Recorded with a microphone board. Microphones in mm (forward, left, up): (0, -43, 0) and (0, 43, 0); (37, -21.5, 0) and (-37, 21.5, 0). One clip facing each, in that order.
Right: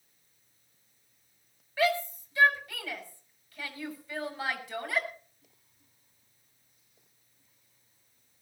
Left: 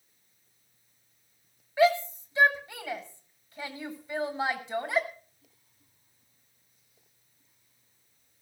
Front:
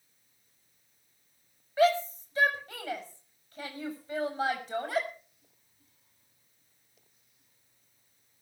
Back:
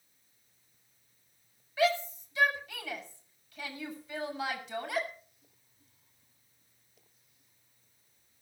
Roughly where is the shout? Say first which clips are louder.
Left 5 dB, front 4 dB; ahead.